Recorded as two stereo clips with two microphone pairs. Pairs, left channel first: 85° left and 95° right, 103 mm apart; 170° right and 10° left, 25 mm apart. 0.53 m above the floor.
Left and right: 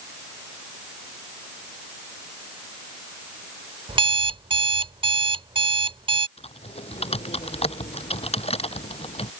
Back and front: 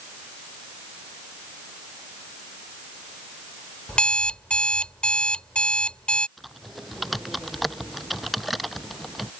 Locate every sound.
3.9 s an alarm clock: 130° right
6.4 s typing on a keyboard: 100° left